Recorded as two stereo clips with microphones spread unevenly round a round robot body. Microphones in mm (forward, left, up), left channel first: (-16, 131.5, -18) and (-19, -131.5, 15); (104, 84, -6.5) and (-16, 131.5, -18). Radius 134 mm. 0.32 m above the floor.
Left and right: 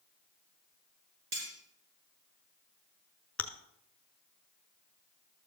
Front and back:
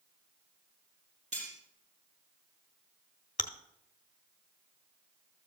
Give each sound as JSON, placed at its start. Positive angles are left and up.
{"t": 1.3, "sound": "cutlery clinking", "azimuth_deg": -140, "distance_m": 4.5}
{"t": 3.4, "sound": "chewing", "azimuth_deg": 5, "distance_m": 0.9}